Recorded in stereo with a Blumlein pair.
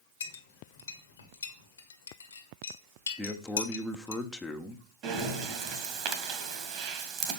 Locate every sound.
0.2 s a clink: 70° left, 1.6 m
3.2 s a man speaking: 5° left, 1.4 m
5.0 s breathing: 35° right, 2 m